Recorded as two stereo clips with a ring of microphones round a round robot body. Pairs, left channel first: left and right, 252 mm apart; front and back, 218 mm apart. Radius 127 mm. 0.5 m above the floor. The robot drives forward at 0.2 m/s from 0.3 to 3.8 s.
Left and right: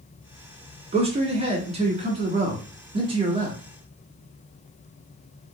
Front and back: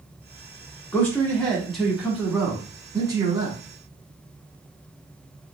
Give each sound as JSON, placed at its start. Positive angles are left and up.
{"t": 0.9, "sound": "a man speaking", "azimuth_deg": -65, "distance_m": 1.0}